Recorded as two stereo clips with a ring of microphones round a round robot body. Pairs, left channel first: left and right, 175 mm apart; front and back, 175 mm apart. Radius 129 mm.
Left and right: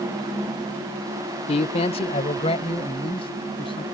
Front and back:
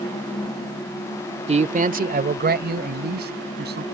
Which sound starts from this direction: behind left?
A man speaking, at 1.5 s.